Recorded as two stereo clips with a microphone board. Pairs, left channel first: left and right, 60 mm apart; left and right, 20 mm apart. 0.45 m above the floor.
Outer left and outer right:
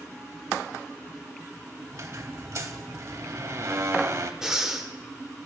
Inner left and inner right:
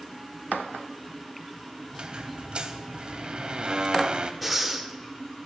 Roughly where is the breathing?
Centre.